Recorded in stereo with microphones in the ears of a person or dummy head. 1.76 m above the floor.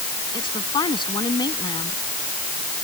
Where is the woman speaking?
25° left (ahead or behind).